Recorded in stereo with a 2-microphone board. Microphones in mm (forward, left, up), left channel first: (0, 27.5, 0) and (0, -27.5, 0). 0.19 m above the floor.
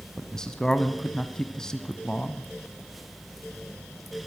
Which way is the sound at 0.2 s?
15° left (ahead or behind).